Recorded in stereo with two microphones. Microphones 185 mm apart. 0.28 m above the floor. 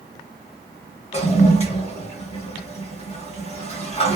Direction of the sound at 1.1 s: 35° left (ahead or behind).